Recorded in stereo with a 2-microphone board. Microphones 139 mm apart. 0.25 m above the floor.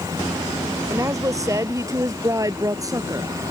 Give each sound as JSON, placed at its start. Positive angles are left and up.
{"t": 0.9, "sound": "a woman speaking", "side_deg": -25}